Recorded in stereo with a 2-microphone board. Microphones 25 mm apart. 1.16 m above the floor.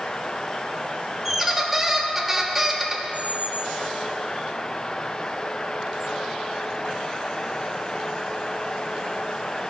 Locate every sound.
1.2 s a squeak: 10° right (ahead or behind), 1.0 m
3.1 s a squeak: 45° right (ahead or behind), 1.6 m